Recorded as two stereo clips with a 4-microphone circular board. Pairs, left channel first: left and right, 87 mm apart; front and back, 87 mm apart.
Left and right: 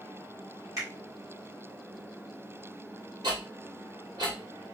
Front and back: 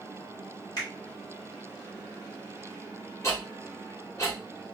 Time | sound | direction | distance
0.8 | a finger snap | 40° right | 2.5 m
3.2 | ticking | 55° right | 1.7 m